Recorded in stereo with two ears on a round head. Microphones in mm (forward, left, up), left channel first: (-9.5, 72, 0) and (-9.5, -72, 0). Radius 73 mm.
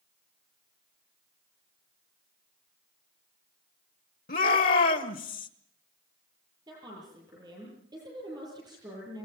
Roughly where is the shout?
Left.